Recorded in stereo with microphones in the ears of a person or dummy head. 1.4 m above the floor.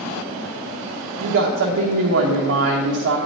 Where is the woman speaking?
55° right (ahead or behind), 1.3 m.